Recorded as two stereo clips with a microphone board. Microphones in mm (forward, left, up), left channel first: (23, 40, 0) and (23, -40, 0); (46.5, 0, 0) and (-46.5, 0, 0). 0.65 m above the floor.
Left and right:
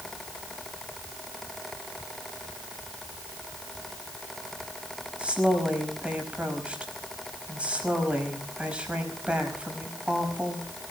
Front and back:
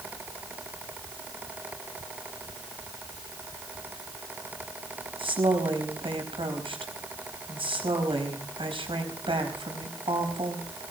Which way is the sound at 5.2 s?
165° right.